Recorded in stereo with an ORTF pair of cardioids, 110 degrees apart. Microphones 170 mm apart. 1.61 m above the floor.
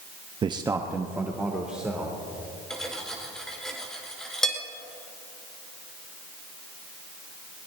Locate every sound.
0.4 s a man speaking: 30° right, 0.6 m; by 2.2 s 5° right, 3 m
2.7 s cutlery clinking: 5° left, 4 m